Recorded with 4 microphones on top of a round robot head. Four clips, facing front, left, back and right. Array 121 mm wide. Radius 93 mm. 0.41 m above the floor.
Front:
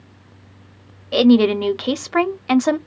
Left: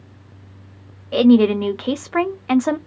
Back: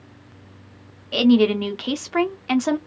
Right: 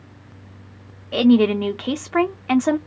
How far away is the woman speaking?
About 0.8 m.